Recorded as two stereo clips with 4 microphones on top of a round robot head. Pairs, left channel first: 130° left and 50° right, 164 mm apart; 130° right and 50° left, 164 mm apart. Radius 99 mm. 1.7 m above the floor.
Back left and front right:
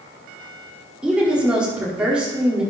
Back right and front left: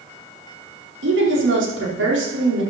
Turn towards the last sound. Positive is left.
turn(degrees=35)